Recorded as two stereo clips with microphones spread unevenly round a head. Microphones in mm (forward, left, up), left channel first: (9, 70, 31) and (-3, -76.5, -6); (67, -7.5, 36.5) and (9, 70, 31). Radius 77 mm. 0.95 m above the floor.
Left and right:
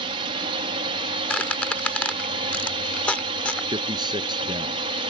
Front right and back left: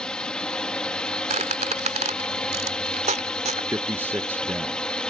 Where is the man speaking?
160° right.